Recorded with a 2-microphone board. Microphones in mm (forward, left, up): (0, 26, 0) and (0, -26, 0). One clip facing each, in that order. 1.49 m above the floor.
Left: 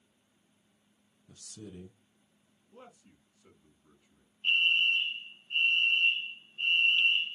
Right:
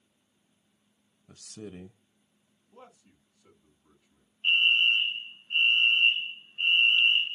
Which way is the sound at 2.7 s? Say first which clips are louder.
Right 1 dB; 10° left (ahead or behind).